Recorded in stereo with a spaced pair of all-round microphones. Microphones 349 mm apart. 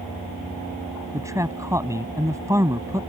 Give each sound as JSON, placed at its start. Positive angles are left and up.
{"t": 1.1, "sound": "a man speaking", "side_deg": -10}